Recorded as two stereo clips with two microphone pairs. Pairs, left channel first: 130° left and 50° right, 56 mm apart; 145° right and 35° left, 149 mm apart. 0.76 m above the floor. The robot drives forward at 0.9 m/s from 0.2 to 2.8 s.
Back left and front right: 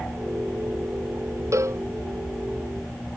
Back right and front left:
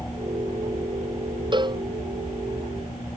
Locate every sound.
1.5 s a cowbell: 20° right; by 1.8 s 25° right